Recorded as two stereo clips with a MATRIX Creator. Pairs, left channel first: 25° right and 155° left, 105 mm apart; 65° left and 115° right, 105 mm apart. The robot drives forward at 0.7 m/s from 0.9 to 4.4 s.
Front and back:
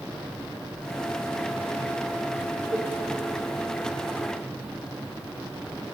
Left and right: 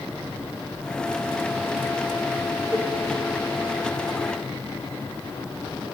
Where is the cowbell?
155° right, 5.5 m.